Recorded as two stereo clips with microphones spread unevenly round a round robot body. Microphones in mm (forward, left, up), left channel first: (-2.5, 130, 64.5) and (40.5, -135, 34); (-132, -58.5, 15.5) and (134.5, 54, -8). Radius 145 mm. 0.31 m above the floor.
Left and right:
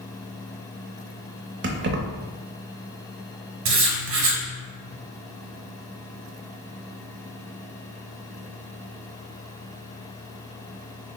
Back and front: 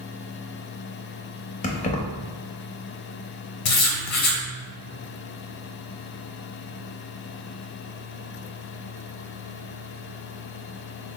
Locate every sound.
1.6 s keys jangling: 95° right, 0.7 m
3.6 s writing: 115° right, 1.0 m